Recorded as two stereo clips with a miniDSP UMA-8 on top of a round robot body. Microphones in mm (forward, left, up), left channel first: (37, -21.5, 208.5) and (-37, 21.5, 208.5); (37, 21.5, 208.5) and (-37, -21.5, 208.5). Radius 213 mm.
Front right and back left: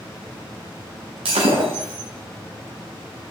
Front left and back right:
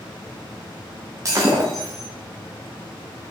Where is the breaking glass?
155° left, 0.6 m.